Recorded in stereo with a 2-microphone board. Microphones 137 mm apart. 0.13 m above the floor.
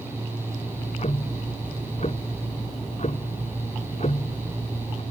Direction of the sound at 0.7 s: 50° left (ahead or behind).